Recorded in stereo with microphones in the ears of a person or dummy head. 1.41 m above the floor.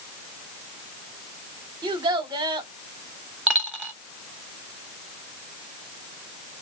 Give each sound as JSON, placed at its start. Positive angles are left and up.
{"t": 1.8, "sound": "a child speaking", "side_deg": -25, "distance_m": 0.8}
{"t": 3.5, "sound": "a dropped coin", "side_deg": -5, "distance_m": 0.9}